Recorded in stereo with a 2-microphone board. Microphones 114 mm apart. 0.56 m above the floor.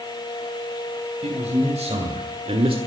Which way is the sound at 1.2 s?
75° right (ahead or behind).